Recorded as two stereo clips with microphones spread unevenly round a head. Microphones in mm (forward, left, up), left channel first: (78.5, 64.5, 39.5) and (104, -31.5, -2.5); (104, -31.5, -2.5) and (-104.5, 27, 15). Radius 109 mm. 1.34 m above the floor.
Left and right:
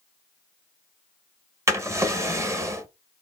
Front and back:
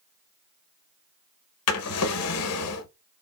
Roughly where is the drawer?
Ahead.